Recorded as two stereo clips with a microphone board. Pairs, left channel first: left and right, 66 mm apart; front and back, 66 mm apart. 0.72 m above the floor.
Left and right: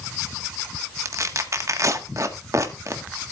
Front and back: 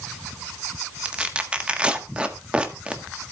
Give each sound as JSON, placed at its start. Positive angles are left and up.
{"t": 1.1, "sound": "tearing paper", "azimuth_deg": -110, "distance_m": 1.4}